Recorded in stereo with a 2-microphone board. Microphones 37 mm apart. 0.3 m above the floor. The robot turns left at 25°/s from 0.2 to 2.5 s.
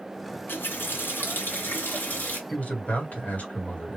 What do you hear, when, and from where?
0.5 s a running tap: 105° left, 1.5 m; by 2.4 s 55° left, 1.5 m
2.5 s a man speaking: 45° left (ahead or behind), 2.0 m